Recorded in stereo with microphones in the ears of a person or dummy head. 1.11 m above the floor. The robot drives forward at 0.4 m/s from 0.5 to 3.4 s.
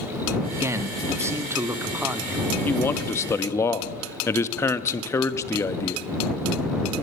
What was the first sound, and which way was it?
A man speaking, 15° right (ahead or behind).